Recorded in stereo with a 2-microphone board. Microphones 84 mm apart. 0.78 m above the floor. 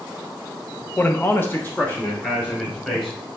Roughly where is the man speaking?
Centre.